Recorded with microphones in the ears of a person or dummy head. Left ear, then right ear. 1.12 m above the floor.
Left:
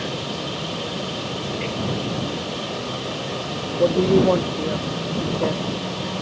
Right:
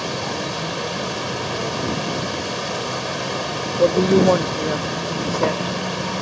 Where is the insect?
65° right (ahead or behind).